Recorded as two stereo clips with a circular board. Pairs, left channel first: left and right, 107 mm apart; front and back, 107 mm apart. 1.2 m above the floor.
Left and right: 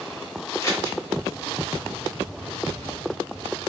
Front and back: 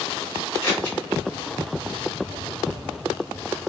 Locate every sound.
0.6 s scissors: 55° left, 1.2 m